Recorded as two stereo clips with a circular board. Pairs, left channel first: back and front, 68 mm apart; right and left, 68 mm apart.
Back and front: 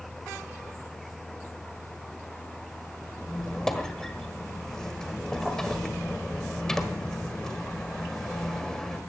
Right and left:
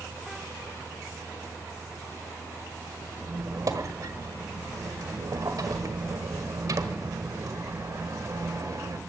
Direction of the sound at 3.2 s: 100° left.